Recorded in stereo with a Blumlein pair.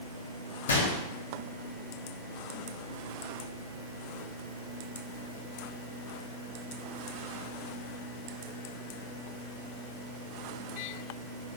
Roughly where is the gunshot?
Ahead left.